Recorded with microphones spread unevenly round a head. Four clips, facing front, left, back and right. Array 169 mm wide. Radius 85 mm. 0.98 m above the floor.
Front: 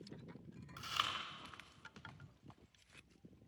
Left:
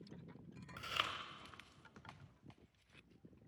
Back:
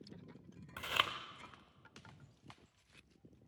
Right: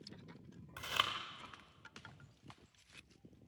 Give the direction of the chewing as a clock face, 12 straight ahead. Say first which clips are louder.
Right 4 dB, back 4 dB; 6 o'clock.